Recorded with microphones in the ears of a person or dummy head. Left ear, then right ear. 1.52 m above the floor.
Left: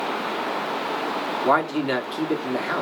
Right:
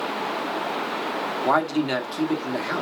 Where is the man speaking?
10° left (ahead or behind), 1.4 m.